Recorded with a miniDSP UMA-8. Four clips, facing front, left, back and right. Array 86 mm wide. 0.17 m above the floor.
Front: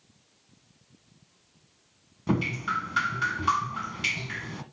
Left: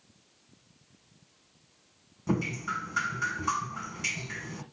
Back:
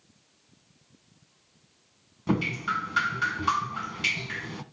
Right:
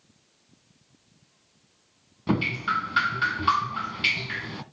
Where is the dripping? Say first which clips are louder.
Right 5 dB, even; 95° right, 1.4 m.